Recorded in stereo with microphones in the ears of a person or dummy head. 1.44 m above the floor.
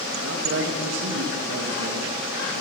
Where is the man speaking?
65° right (ahead or behind), 1.5 m.